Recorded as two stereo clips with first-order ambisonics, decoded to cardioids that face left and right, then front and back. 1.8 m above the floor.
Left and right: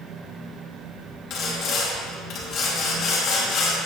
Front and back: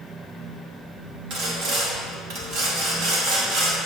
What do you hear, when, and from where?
1.3 s sawing: 140° left, 2.5 m